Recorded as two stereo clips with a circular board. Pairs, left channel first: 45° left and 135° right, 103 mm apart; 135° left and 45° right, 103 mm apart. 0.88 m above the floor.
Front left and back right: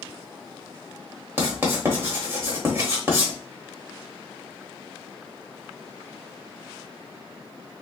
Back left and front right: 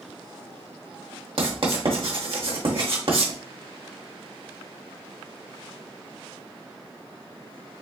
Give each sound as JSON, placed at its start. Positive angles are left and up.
{"t": 1.4, "sound": "writing", "azimuth_deg": -70, "distance_m": 1.2}